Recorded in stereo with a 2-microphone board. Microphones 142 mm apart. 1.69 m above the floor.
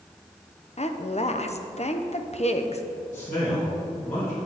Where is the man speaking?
60° left (ahead or behind), 3 m.